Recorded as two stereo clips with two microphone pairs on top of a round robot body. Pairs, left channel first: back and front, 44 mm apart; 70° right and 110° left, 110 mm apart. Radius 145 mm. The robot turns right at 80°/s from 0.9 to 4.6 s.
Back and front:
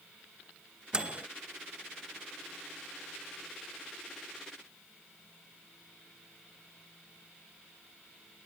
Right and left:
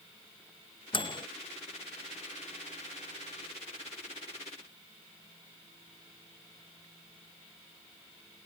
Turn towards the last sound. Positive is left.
turn(degrees=-135)